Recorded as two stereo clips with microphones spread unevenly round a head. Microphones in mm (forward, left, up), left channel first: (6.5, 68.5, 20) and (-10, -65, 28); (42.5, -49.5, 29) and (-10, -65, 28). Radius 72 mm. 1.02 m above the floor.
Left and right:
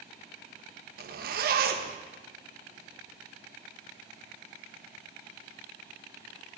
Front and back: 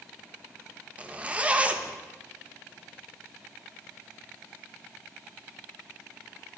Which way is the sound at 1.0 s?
100° right.